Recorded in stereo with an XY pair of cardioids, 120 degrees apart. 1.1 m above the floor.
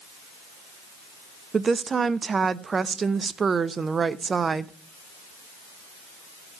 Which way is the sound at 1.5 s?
30° right.